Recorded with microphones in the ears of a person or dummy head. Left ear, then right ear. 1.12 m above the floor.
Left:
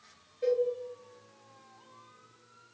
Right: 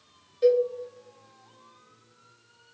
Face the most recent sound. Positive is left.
turn(degrees=-50)  # may be behind; listen again after turning